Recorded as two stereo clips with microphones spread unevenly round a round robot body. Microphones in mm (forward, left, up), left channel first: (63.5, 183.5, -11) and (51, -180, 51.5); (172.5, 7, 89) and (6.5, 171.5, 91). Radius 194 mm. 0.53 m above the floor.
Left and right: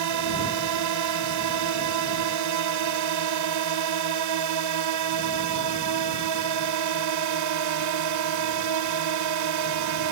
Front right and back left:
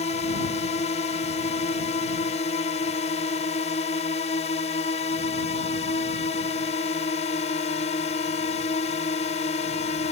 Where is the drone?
105° right.